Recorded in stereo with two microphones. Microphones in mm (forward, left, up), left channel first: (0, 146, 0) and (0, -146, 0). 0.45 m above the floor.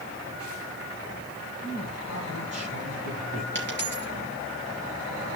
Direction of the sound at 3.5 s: 40° left (ahead or behind).